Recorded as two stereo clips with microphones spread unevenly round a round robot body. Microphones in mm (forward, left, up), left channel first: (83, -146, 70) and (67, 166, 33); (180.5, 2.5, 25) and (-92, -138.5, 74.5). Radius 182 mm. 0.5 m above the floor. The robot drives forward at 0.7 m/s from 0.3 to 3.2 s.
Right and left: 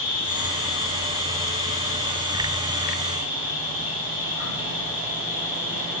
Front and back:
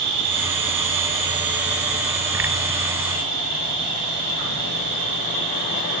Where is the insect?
110° right, 1.1 m; by 6.0 s 160° right, 2.5 m.